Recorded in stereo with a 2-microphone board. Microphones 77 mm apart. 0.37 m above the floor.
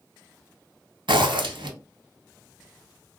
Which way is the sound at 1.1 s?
90° right.